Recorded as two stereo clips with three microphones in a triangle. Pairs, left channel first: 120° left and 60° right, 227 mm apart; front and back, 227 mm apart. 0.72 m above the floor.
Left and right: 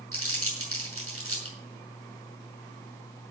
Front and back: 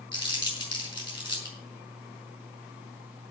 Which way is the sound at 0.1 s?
70° right.